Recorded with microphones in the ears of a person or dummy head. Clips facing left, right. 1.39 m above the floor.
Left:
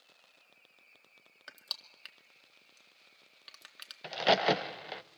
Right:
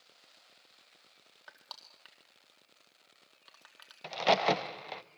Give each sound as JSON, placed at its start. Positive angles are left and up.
{"t": 1.5, "sound": "crushing", "side_deg": 30, "distance_m": 1.9}
{"t": 4.0, "sound": "a crack", "side_deg": 10, "distance_m": 0.6}